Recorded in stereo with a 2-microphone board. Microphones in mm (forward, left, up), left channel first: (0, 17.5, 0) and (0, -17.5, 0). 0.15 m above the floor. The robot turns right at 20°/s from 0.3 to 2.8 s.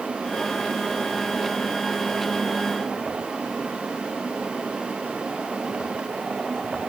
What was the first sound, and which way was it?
Only background noise.